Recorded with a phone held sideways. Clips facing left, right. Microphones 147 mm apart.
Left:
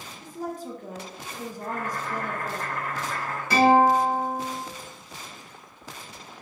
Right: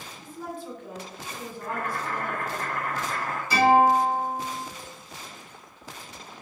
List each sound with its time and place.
0.2 s a woman speaking: 40° left (ahead or behind), 0.6 m
1.6 s boiling: 60° right (ahead or behind), 0.8 m
3.5 s a guitar: 65° left (ahead or behind), 1.9 m